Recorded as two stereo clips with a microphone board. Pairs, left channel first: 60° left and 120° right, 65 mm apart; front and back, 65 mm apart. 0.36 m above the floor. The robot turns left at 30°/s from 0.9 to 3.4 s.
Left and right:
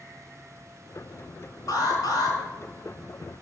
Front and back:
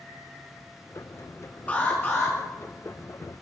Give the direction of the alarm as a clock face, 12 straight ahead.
10 o'clock.